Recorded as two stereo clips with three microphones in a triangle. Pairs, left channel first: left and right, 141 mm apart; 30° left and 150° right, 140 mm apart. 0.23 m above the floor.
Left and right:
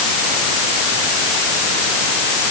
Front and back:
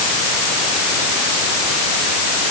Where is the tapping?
No tapping in this recording.